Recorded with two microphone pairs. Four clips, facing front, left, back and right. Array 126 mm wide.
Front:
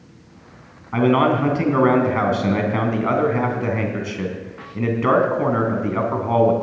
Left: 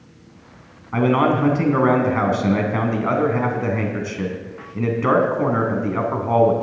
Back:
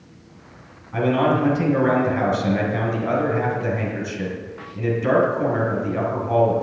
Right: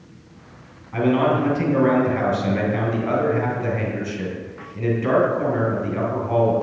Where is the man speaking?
40° left, 3 m.